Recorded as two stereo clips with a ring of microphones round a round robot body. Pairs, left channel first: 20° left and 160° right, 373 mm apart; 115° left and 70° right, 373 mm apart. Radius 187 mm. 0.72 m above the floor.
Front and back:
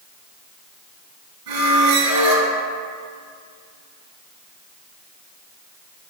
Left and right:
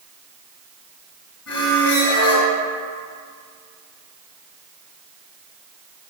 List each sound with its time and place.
1.5 s a squeak: 165° left, 1.6 m